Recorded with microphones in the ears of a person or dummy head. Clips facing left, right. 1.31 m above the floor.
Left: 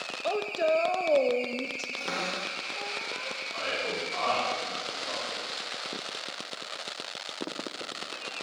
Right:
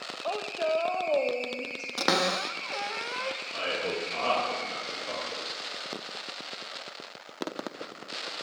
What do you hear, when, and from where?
0.2 s a woman speaking: 30° left (ahead or behind), 0.8 m
2.0 s a cupboard door: 80° right, 0.6 m
3.5 s a man speaking: 35° right (ahead or behind), 2.5 m